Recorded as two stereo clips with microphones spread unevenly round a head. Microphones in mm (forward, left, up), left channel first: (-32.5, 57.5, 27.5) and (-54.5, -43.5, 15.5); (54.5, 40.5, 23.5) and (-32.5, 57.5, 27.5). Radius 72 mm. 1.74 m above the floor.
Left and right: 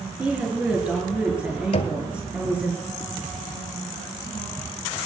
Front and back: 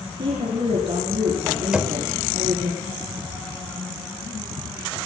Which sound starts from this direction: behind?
A woman speaking, at 0.2 s.